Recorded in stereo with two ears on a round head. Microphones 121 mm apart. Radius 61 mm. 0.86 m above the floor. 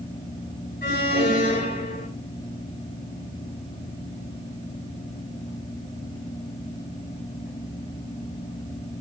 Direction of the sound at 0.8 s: 80° left.